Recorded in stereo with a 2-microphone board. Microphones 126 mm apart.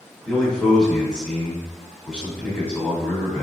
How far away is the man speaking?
About 1.7 m.